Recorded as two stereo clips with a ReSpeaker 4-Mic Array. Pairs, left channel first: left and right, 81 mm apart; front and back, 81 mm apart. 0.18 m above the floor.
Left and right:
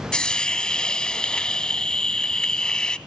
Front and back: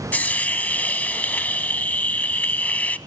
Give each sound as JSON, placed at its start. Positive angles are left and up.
{"t": 0.1, "sound": "a hiss", "azimuth_deg": 30, "distance_m": 0.5}